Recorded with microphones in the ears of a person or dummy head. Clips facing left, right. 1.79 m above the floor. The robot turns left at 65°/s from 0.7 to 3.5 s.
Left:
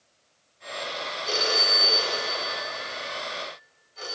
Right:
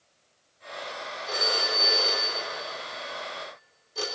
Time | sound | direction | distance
1.3 | a phone ringing | 50° left (ahead or behind) | 4 m